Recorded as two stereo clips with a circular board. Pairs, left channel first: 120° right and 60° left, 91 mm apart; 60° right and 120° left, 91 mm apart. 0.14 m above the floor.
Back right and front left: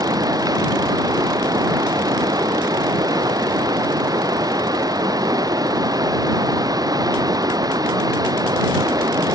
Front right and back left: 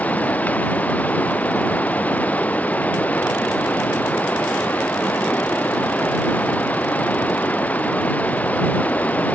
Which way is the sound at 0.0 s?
15° left.